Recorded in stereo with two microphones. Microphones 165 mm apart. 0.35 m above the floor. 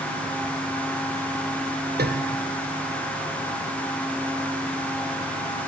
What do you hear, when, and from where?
2.0 s a piano: 80° right, 1.5 m